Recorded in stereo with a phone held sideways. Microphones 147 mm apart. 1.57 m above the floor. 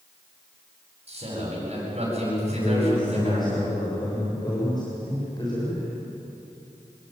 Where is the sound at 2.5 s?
30° left (ahead or behind), 7 m.